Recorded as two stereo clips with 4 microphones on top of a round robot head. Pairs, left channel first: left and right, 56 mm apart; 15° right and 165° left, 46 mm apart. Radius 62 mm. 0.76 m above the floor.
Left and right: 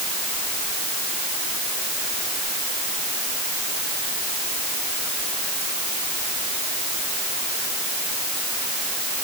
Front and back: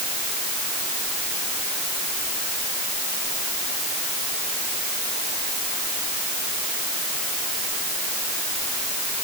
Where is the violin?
No violin in this recording.